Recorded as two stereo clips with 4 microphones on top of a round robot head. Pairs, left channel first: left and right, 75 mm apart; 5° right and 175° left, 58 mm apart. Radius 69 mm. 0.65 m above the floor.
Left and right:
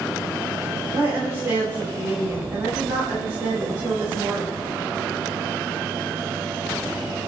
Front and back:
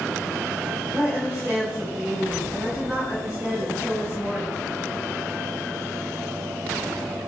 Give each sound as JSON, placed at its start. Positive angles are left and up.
{"t": 0.9, "sound": "a woman speaking", "azimuth_deg": -120, "distance_m": 3.0}